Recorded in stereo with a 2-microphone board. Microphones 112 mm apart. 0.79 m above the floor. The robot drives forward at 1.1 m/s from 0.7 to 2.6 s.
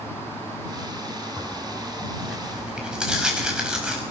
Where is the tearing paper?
5° right (ahead or behind), 6.5 m.